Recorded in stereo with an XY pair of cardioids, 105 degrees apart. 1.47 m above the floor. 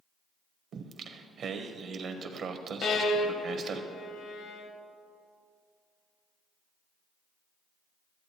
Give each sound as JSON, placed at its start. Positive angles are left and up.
{"t": 0.7, "sound": "singing", "azimuth_deg": -55, "distance_m": 0.9}
{"t": 2.8, "sound": "a violin", "azimuth_deg": 65, "distance_m": 1.0}